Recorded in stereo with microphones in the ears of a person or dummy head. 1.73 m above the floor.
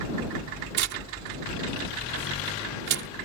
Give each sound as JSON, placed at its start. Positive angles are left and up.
{"t": 0.7, "sound": "tearing paper", "side_deg": -60}